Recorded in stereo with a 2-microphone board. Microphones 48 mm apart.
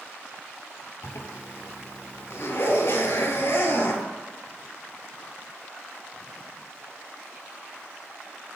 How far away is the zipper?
About 0.7 m.